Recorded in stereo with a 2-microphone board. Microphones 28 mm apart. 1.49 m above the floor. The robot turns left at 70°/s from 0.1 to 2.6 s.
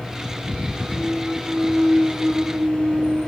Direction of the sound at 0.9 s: 45° left.